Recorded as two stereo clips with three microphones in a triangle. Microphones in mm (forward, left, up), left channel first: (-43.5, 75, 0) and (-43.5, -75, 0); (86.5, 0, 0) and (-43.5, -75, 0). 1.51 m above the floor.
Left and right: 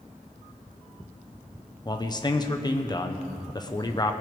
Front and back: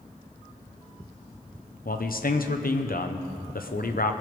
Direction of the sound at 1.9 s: 30° left.